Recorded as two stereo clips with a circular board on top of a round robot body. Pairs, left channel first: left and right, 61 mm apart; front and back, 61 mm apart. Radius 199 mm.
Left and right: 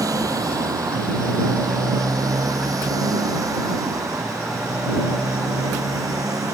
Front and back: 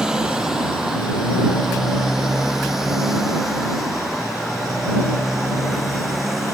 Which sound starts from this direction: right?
A motorcycle, at 0.0 s.